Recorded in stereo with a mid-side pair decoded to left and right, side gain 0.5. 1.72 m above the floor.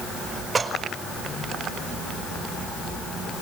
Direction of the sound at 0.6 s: 25° right.